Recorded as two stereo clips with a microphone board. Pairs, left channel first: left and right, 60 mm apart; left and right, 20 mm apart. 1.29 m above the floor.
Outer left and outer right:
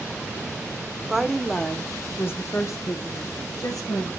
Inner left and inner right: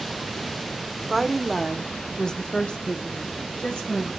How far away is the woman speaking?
About 1.1 m.